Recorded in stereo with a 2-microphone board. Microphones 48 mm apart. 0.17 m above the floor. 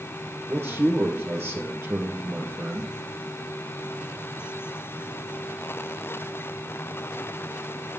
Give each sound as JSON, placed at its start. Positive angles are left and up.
{"t": 0.5, "sound": "a man speaking", "side_deg": -55, "distance_m": 3.5}